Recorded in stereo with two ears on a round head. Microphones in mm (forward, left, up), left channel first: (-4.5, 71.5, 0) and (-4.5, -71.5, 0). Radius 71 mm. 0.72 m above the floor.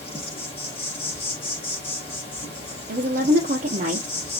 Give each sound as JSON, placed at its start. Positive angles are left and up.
{"t": 0.0, "sound": "an insect", "side_deg": 35, "distance_m": 1.6}
{"t": 2.9, "sound": "a woman speaking", "side_deg": -45, "distance_m": 0.8}